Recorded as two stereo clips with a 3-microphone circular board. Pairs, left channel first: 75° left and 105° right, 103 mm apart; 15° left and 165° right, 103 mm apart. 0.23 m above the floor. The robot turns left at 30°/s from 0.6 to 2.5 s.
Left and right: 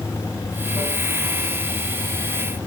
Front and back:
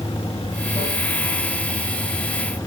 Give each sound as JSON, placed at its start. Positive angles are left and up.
{"t": 0.0, "sound": "running water", "azimuth_deg": 15, "distance_m": 7.0}